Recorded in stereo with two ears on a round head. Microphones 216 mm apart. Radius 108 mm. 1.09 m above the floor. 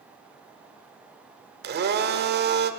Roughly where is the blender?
Right.